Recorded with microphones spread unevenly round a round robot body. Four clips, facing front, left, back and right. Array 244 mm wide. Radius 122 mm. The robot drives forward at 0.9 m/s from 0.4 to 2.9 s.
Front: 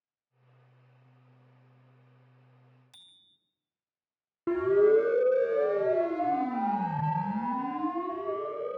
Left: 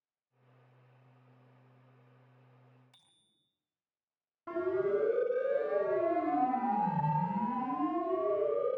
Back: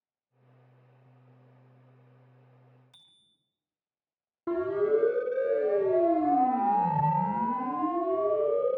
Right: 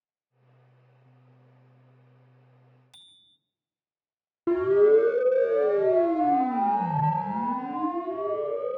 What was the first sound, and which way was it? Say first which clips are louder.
A bicycle bell: right 8 dB, front 2 dB; 95° right.